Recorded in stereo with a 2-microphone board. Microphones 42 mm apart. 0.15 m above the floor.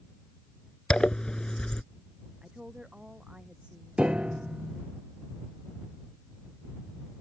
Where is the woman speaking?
20° right (ahead or behind).